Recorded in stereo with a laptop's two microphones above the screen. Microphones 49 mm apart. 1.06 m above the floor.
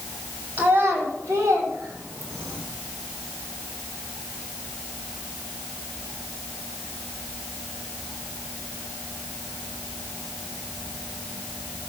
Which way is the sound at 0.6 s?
40° right (ahead or behind).